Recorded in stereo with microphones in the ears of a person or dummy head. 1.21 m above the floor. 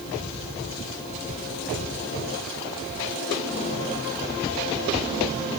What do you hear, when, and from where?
Only background noise.